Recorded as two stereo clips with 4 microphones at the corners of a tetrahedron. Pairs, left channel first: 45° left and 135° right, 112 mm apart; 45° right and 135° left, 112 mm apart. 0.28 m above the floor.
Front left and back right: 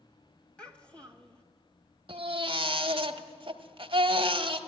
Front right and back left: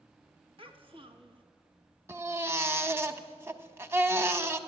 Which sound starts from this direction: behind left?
A child speaking, at 0.6 s.